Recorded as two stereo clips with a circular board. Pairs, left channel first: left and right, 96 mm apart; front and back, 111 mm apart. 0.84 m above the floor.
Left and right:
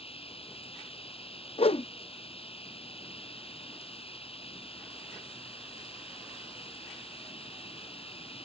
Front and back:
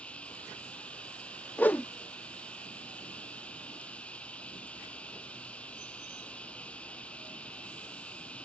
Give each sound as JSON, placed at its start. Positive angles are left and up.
{"t": 0.0, "sound": "running water", "azimuth_deg": 80}
{"t": 1.6, "sound": "a whoosh", "azimuth_deg": 75}